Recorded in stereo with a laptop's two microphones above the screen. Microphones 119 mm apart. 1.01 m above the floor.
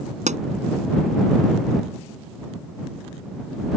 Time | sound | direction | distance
0.3 | a pop | 85° right | ?